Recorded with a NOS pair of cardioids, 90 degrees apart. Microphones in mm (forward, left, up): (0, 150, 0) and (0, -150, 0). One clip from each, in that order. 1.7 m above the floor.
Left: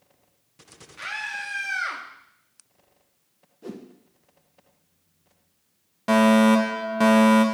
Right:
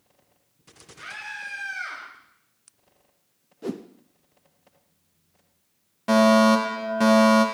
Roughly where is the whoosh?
Ahead right.